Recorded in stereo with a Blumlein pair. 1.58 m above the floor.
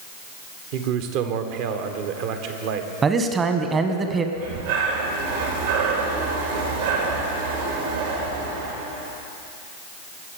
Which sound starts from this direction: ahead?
A man speaking, at 3.0 s.